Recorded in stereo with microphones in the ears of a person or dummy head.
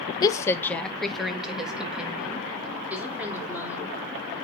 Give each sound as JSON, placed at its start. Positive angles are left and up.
{"t": 0.2, "sound": "a woman speaking", "side_deg": 25, "distance_m": 0.6}